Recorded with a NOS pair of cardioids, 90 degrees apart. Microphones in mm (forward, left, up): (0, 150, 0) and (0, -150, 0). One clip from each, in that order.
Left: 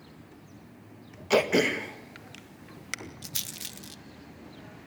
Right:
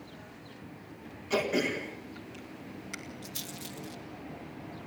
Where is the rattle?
50° left, 1.2 m.